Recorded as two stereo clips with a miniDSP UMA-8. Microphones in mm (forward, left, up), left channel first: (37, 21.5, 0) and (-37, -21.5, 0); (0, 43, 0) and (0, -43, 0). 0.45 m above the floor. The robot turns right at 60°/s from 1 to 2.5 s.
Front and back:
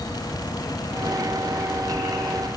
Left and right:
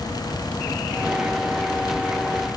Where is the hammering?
No hammering in this recording.